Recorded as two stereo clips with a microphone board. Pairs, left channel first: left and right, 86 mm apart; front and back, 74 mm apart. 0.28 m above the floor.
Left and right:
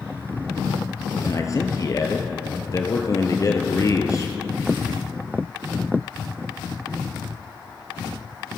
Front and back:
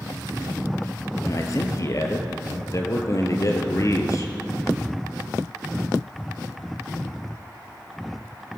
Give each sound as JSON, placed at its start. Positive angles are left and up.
{"t": 1.2, "sound": "a man speaking", "azimuth_deg": 40, "distance_m": 4.5}